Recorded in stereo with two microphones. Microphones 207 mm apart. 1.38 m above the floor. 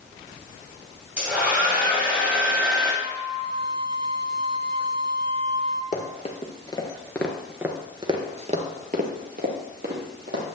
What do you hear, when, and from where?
1.2 s a hair dryer: 5° right (ahead or behind), 4 m
3.0 s a flute: 25° right (ahead or behind), 0.8 m
5.9 s running footsteps: 35° left (ahead or behind), 1.9 m; by 10.4 s 55° right (ahead or behind), 3 m